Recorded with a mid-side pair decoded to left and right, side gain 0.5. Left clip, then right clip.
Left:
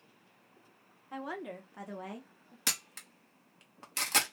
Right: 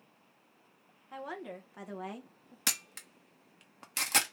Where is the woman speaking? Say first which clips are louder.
Left 1 dB; 10° left, 1.2 m; by 2.6 s 35° right, 0.9 m.